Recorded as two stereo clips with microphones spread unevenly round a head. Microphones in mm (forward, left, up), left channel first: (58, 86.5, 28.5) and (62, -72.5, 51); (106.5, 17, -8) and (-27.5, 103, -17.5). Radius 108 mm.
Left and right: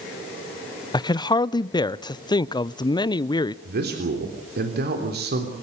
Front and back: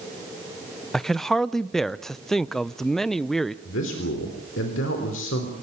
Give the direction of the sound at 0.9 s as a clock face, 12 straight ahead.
10 o'clock.